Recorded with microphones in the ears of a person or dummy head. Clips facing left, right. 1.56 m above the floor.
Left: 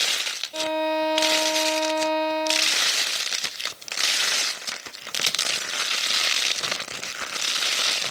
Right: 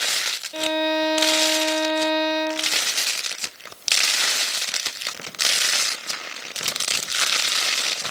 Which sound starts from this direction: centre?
A violin, at 0.5 s.